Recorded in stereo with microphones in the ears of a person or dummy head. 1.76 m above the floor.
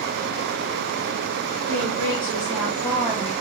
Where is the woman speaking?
20° right (ahead or behind), 3 m.